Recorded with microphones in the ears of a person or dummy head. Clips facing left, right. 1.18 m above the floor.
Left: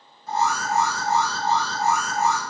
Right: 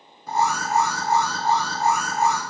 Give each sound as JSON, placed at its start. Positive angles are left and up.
{"t": 0.3, "sound": "an alarm", "side_deg": -55, "distance_m": 3.0}